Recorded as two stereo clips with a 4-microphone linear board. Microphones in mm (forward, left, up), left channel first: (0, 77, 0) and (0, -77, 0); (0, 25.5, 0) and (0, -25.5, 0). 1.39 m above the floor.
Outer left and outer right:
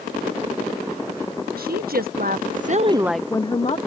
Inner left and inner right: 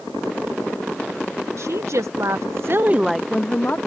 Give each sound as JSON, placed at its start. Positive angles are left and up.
{"t": 1.6, "sound": "a woman speaking", "side_deg": -75}